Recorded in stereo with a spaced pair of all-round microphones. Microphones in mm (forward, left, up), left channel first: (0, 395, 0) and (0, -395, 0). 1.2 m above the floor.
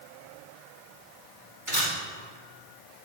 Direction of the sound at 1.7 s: 85° right.